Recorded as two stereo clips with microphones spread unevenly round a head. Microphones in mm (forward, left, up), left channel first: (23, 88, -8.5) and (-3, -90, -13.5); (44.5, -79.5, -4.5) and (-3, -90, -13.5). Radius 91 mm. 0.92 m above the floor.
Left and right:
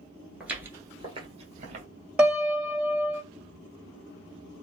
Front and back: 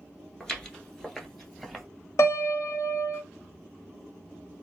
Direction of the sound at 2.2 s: 15° right.